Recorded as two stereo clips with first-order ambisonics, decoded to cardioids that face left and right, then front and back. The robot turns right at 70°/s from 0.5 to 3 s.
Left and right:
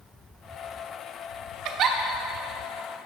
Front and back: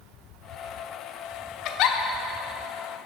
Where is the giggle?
50° right, 0.6 m; by 2.0 s 30° right, 0.6 m.